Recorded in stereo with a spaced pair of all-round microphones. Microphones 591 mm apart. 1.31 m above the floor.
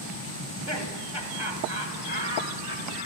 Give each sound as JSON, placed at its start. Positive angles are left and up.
{"t": 0.4, "sound": "laughter", "side_deg": -45, "distance_m": 9.5}